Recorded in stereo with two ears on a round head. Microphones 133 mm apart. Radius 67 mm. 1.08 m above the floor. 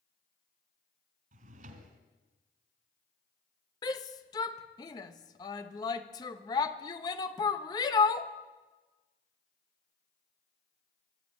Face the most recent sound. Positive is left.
turn(degrees=25)  # may be behind; listen again after turning